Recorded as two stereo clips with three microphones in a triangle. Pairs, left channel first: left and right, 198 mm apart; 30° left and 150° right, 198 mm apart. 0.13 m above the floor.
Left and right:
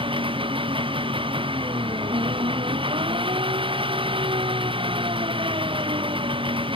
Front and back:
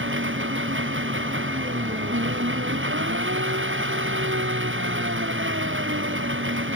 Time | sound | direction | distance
0.0 | an engine running | 155° right | ?